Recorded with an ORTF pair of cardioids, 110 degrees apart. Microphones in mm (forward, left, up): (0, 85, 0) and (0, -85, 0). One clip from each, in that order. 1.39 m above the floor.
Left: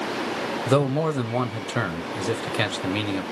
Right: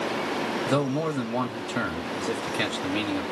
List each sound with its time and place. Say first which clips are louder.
0.7 s a man speaking: left 6 dB; 25° left, 1.1 m